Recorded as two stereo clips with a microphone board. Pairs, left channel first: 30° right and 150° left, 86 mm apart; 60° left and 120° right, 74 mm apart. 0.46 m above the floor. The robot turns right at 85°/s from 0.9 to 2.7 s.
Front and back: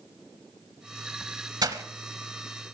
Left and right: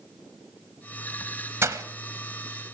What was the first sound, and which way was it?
Breaking glass, 175° right.